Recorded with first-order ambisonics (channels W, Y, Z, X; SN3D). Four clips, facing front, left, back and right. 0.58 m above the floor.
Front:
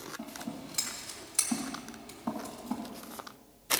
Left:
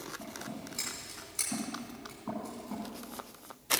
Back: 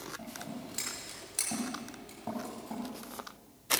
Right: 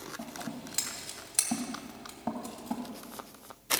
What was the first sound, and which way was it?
Scissors, 85° right.